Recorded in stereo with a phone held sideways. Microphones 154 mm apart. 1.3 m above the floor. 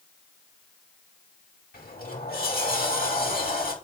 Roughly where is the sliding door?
Left.